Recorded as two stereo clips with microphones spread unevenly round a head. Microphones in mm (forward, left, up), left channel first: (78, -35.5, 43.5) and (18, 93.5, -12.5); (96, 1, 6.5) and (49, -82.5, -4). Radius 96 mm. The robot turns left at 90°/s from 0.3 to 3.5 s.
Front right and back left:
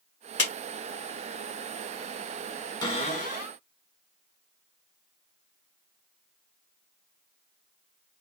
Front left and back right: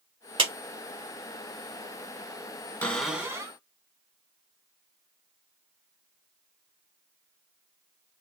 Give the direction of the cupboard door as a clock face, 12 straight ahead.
12 o'clock.